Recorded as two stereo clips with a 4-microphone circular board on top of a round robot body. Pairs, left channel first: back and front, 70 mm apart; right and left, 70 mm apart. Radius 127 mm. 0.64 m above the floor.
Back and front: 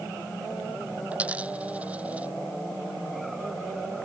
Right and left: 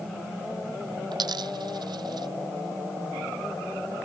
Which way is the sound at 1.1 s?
70° left.